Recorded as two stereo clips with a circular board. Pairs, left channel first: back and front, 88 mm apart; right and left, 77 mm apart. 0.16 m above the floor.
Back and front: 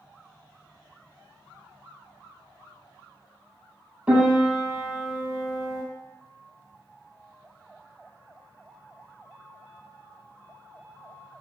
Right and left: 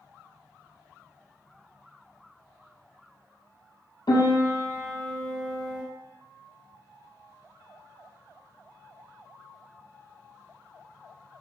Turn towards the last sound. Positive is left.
turn(degrees=-70)